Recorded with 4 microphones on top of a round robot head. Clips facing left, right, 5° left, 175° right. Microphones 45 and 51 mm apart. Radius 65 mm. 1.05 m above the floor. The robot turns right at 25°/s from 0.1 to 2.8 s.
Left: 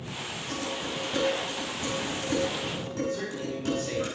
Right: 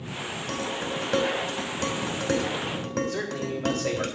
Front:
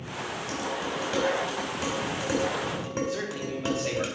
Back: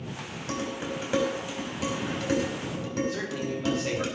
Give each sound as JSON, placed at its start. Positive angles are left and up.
{"t": 0.5, "sound": "dishes clattering", "azimuth_deg": -120, "distance_m": 3.0}
{"t": 3.1, "sound": "a man speaking", "azimuth_deg": -85, "distance_m": 3.0}